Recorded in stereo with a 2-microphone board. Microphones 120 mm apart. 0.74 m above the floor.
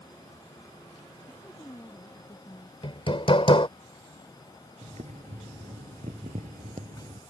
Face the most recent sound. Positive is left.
turn(degrees=-75)  # may be behind; listen again after turning